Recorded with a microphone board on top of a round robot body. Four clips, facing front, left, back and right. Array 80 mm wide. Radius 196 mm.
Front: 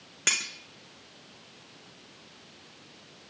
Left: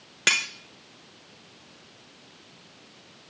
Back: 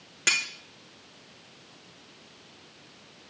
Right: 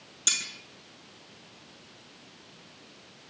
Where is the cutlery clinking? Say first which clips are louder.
Left 11 dB, back 3 dB; 90° left, 1.5 m.